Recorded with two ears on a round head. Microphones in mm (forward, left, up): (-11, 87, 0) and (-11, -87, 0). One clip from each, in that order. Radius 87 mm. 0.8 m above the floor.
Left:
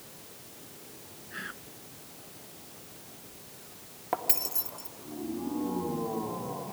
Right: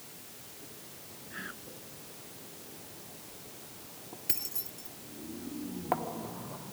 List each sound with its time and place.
1.3 s whispering: 25° left (ahead or behind)
4.3 s keys jangling: 20° left (ahead or behind)